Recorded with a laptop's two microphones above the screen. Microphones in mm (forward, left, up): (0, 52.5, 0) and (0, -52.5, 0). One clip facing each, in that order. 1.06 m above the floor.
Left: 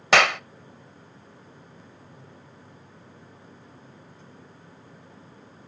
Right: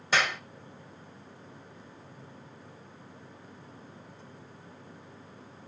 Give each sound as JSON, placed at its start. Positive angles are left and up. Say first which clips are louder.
{"t": 0.1, "sound": "a clap", "louder": "left 9 dB", "side_deg": 80, "distance_m": 0.5}